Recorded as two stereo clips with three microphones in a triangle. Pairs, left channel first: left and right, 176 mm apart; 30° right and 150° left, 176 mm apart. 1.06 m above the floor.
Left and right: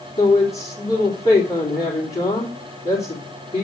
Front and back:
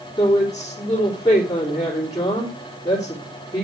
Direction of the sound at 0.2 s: 40° left.